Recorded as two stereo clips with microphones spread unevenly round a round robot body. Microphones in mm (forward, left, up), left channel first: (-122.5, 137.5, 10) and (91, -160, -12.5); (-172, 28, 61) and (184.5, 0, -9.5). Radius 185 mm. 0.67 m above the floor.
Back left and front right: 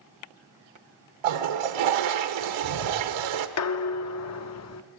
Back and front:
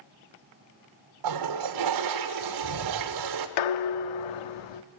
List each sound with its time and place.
1.2 s a toilet flushing: 40° right, 1.2 m
3.6 s dishes clattering: 175° left, 0.9 m